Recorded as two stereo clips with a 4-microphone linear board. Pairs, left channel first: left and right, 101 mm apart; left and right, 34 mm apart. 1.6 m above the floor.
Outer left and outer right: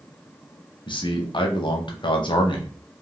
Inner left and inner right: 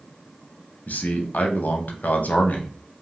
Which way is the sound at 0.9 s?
50° left (ahead or behind).